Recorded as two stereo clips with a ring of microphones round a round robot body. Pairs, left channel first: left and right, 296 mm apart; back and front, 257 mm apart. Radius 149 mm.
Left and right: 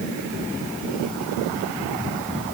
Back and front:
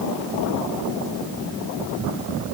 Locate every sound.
Only background noise.